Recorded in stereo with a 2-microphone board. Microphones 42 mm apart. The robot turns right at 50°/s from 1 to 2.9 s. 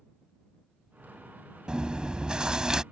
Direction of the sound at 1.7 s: 25° right (ahead or behind).